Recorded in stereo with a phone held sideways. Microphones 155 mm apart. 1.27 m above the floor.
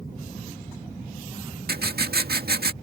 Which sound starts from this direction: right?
Writing, at 1.7 s.